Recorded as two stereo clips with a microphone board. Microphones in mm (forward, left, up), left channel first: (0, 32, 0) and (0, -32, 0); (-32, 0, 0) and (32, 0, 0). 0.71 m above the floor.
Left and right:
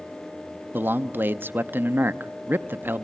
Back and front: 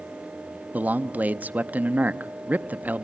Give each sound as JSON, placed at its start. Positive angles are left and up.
{"t": 0.7, "sound": "a man speaking", "azimuth_deg": -50, "distance_m": 0.7}